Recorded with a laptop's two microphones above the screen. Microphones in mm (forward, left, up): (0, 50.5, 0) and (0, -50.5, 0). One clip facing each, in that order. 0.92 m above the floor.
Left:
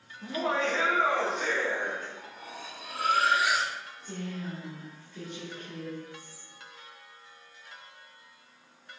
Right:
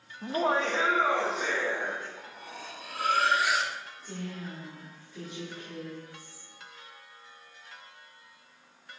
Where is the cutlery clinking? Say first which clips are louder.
Left 1 dB; centre (ahead or behind), 1.3 m.